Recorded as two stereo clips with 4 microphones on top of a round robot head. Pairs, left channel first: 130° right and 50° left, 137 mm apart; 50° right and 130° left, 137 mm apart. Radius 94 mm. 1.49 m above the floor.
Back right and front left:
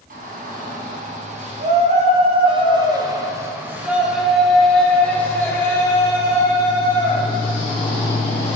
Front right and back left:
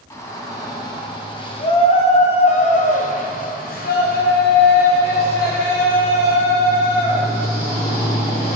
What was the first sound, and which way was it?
A shout, 20° left.